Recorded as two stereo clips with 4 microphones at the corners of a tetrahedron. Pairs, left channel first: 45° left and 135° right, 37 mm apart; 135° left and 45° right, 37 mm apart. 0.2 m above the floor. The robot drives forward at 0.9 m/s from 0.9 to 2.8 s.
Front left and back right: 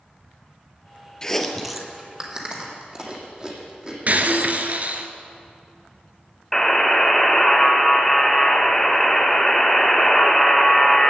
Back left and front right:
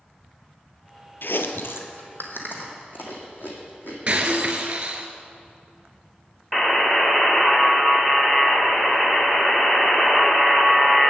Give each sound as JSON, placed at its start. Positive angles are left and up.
{"t": 1.2, "sound": "chewing", "azimuth_deg": 120, "distance_m": 0.7}
{"t": 4.1, "sound": "breaking glass", "azimuth_deg": -100, "distance_m": 1.1}
{"t": 6.5, "sound": "a buzzer", "azimuth_deg": 105, "distance_m": 1.0}